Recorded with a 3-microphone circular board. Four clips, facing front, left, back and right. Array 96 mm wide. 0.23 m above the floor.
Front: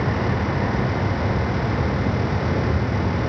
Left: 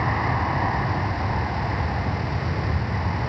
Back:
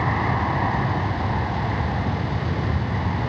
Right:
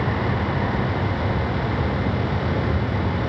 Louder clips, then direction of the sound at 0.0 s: Even, even; 135° left.